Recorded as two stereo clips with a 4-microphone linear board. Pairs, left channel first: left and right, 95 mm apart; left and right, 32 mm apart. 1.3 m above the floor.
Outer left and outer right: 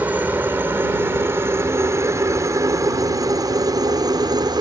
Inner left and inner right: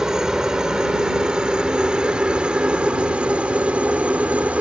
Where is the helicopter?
20° right (ahead or behind); by 4.6 s 50° right (ahead or behind).